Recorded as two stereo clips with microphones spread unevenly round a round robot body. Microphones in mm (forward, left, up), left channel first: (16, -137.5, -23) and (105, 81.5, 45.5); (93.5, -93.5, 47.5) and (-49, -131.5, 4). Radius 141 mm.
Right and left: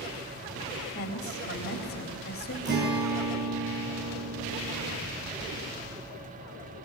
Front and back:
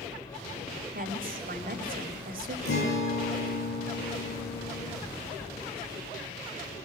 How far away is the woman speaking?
About 3 m.